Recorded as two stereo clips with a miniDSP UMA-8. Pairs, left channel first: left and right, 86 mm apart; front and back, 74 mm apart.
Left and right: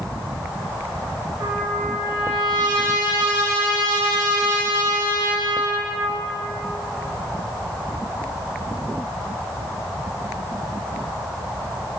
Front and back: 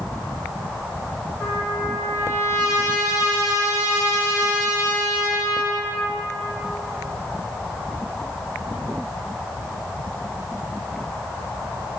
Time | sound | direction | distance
1.4 | a trumpet | 55° right | 5 m